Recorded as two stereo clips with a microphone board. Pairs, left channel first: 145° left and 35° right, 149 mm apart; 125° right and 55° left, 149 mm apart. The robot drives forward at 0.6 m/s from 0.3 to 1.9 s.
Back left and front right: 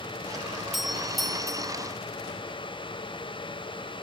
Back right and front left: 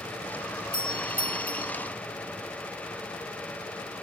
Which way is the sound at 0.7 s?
120° right.